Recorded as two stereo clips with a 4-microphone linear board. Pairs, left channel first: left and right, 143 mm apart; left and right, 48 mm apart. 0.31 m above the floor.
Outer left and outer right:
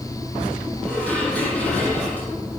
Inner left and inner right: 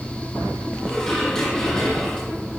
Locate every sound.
0.8 s dishes clattering: 10° left (ahead or behind), 7.5 m